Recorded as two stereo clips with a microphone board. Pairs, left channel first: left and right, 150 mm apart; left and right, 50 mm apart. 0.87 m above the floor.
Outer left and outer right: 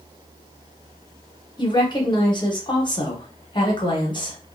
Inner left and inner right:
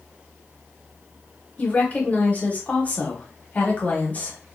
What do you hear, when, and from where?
1.6 s a woman speaking: 30° left (ahead or behind), 0.9 m